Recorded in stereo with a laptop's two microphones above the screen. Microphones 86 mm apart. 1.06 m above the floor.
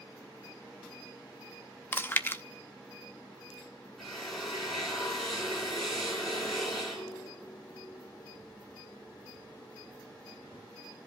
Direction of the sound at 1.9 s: 25° left (ahead or behind).